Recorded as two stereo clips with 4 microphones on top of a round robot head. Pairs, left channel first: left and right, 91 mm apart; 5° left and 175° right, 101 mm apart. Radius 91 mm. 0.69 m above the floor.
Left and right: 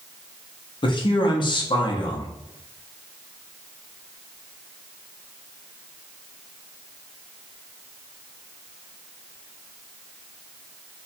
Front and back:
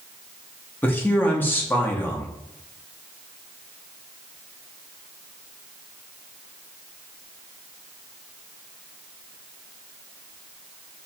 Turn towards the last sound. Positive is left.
turn(degrees=75)